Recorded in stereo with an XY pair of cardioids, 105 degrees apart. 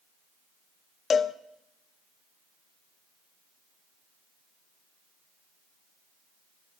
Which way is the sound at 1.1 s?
40° left.